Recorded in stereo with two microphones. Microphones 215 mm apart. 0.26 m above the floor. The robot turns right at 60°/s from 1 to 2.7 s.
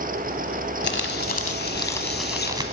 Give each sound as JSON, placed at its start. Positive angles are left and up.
{"t": 0.8, "sound": "crumpling", "azimuth_deg": 105, "distance_m": 1.0}